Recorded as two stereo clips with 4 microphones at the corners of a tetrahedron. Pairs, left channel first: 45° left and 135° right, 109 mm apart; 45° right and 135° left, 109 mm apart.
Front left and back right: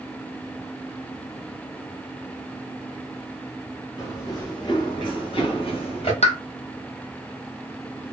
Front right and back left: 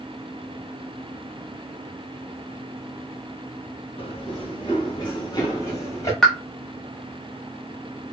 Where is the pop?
40° left, 0.8 m.